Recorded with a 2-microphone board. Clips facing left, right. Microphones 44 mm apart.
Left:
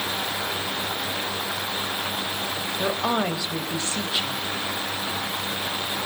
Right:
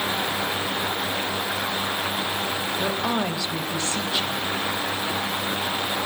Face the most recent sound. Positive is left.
turn(degrees=15)  # may be behind; listen again after turning